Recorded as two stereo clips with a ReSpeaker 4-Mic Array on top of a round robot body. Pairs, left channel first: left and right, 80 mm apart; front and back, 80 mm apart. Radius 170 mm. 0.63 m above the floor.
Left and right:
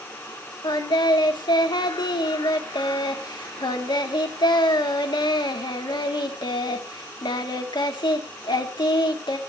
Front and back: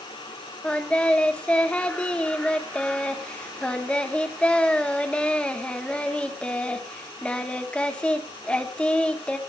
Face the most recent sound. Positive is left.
turn(degrees=75)